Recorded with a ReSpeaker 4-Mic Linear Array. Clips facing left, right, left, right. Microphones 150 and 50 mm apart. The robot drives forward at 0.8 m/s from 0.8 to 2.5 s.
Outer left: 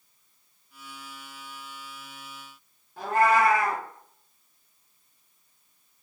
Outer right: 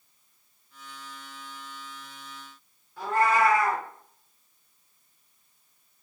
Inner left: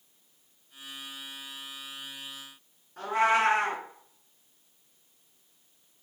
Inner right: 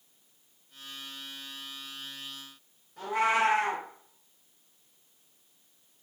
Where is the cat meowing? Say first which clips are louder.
Outer left 2 dB, inner left 2 dB; 45° left (ahead or behind), 2.5 m.